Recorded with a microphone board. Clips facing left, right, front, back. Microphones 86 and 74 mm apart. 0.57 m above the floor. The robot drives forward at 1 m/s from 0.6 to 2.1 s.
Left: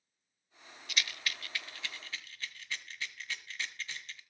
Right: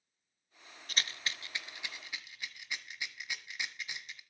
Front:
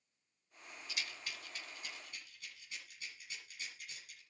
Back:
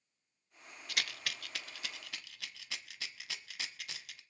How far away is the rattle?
About 0.7 m.